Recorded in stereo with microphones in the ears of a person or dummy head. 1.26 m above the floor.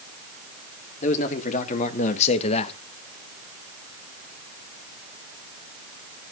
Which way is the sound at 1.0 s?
45° left (ahead or behind).